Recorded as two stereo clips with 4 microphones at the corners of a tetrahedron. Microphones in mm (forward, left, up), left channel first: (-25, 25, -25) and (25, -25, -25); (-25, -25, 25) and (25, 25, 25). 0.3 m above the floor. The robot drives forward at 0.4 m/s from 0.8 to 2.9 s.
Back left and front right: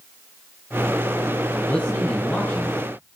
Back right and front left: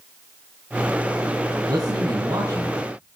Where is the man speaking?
70° left, 3.5 m; by 3.2 s 80° left, 3 m.